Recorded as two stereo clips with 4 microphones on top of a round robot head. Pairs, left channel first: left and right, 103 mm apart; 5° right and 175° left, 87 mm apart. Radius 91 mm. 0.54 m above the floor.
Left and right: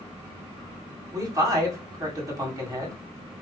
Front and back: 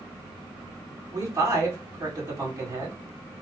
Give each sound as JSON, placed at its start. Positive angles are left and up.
{"t": 1.1, "sound": "a man speaking", "azimuth_deg": -135, "distance_m": 2.0}